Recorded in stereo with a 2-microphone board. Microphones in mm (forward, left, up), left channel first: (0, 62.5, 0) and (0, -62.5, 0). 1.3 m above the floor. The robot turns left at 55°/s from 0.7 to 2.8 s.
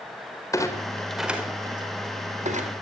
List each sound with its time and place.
0.5 s a clunk: 25° left (ahead or behind), 4.5 m; by 2.7 s 85° right, 4.5 m